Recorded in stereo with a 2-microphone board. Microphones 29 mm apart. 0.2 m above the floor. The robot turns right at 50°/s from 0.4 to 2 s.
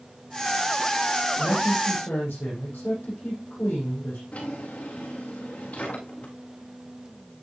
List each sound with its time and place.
1.4 s a man speaking: 60° left, 7 m; by 4.2 s 90° left, 7 m
4.3 s a drawer: 70° left (ahead or behind), 8.5 m